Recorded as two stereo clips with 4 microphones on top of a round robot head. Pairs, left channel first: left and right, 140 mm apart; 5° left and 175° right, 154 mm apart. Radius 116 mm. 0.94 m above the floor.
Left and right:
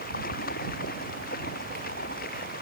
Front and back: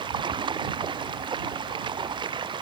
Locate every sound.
0.0 s running water: 125° left